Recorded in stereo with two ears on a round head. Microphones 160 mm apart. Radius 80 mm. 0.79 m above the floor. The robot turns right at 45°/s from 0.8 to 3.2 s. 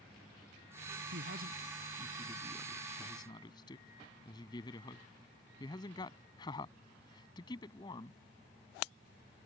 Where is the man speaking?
70° right (ahead or behind); by 8.2 s 25° left (ahead or behind).